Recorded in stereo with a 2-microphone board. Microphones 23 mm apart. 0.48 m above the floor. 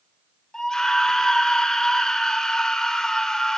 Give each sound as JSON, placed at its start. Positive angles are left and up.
{"t": 0.5, "sound": "a scream", "side_deg": 25, "distance_m": 1.5}